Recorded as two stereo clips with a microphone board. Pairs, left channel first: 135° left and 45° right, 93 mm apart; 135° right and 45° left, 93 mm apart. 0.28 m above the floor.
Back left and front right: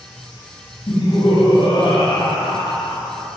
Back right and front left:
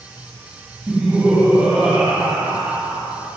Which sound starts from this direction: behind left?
Laughter, at 0.9 s.